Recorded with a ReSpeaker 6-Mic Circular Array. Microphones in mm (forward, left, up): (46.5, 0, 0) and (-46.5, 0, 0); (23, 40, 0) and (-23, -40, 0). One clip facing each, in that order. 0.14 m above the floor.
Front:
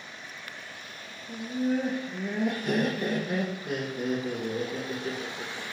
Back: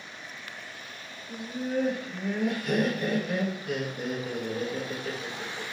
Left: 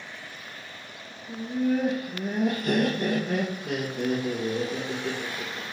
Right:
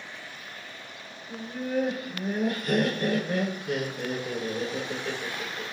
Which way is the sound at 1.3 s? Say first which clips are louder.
Front 4 dB, left 6 dB; 55° left.